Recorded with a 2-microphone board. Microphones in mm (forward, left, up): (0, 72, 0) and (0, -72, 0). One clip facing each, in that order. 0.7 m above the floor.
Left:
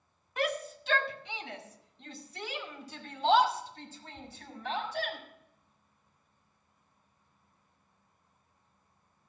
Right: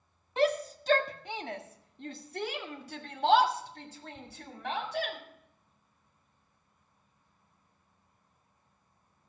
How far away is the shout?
About 1.1 m.